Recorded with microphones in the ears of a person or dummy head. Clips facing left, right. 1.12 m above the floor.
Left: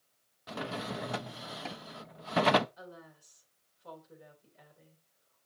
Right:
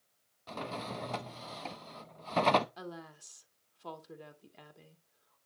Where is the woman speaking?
85° right, 2 m.